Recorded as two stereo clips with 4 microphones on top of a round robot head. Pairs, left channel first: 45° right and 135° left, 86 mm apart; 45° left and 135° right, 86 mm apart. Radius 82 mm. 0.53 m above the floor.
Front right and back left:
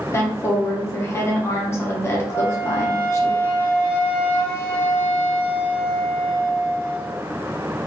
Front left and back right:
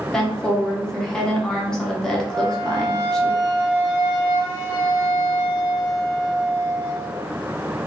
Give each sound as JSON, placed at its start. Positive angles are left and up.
{"t": 0.1, "sound": "a woman speaking", "azimuth_deg": -35, "distance_m": 0.7}
{"t": 2.3, "sound": "a flute", "azimuth_deg": 15, "distance_m": 1.2}